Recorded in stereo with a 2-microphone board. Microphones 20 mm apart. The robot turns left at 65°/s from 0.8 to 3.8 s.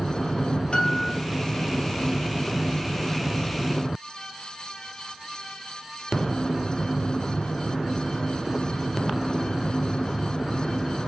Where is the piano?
60° left (ahead or behind), 1.2 m.